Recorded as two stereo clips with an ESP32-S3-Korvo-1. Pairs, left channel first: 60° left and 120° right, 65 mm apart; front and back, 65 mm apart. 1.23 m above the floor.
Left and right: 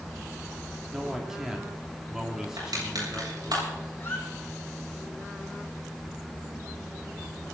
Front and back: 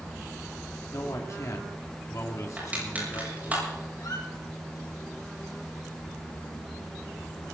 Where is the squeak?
5° left, 6 m.